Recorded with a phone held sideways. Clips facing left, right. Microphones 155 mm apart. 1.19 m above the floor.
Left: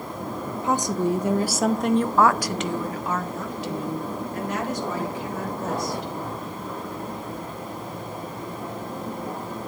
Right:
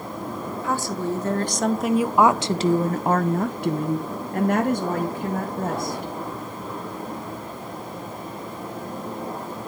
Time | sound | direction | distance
0.6 | a woman speaking | 20° left (ahead or behind) | 1.2 m